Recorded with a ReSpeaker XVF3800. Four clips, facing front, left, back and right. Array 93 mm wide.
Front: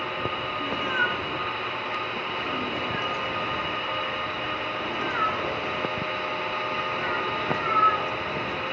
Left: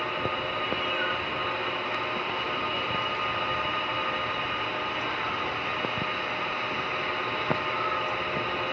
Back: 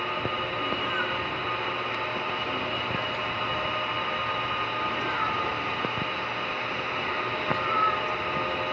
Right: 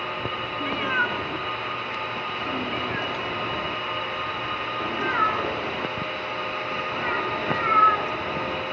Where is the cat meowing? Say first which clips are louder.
Right 8 dB, front 5 dB; 75° right, 1.3 m.